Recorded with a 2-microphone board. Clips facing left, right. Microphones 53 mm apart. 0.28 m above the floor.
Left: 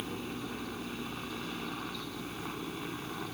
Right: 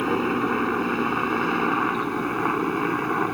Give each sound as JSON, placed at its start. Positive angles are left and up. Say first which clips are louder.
{"t": 0.0, "sound": "a helicopter", "louder": "right 16 dB", "side_deg": -60}